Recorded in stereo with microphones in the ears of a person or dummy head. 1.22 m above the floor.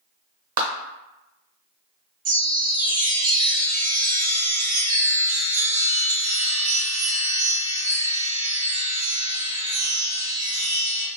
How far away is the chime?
About 1.3 m.